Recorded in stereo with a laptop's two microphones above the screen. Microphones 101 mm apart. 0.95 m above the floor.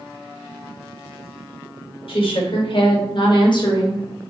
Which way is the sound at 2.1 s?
65° left (ahead or behind).